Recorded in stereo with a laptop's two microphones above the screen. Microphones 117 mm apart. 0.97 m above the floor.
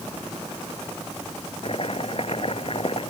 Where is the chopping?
55° left (ahead or behind).